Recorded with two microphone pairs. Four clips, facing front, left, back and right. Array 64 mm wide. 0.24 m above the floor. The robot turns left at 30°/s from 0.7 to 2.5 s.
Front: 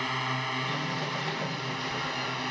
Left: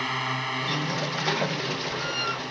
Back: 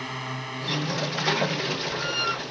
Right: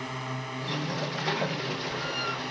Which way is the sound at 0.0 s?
70° left.